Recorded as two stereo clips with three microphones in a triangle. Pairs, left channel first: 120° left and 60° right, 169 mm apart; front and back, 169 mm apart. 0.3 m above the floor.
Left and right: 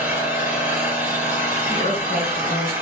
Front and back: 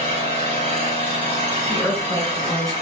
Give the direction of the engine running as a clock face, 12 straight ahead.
5 o'clock.